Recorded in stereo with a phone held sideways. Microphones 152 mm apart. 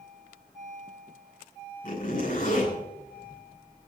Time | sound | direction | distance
1.8 | a zipper | 60° left (ahead or behind) | 10 m